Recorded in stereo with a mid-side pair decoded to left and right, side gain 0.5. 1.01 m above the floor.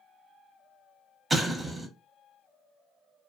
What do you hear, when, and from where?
1.3 s an explosion: 25° right, 0.9 m